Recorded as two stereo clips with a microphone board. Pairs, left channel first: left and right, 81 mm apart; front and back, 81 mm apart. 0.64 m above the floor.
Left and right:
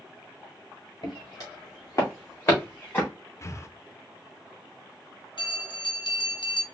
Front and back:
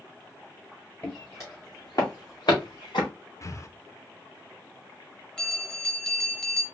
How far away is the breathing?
About 0.5 m.